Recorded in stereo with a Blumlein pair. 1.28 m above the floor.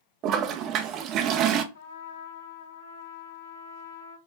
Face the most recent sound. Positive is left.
turn(degrees=55)